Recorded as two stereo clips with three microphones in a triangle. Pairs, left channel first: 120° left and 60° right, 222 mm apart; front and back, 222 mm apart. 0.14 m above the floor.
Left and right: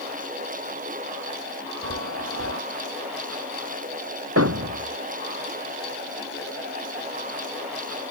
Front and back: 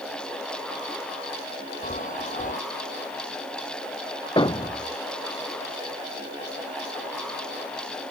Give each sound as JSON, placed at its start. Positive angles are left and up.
{"t": 1.8, "sound": "a chime", "azimuth_deg": -55}
{"t": 4.4, "sound": "a thud", "azimuth_deg": -70}